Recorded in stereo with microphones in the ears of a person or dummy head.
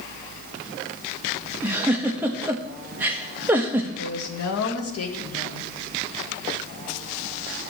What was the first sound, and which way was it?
A giggle, 10° right (ahead or behind).